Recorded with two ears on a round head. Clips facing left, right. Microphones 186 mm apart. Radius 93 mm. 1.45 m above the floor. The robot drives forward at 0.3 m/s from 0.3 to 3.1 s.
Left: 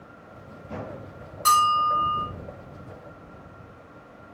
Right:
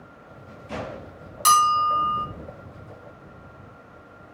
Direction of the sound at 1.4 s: 55° right (ahead or behind).